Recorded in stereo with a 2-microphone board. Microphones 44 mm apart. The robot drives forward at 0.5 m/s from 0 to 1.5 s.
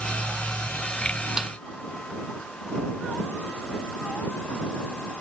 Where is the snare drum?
15° right (ahead or behind).